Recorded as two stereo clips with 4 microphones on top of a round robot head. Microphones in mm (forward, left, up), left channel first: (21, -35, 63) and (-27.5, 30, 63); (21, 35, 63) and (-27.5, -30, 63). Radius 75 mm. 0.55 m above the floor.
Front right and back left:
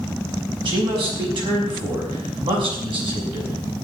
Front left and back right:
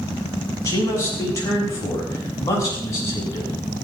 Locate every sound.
0.7 s a man speaking: 110° left, 6 m